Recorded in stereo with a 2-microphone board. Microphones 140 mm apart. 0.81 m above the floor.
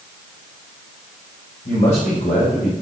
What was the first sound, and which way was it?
A man speaking, 75° left (ahead or behind).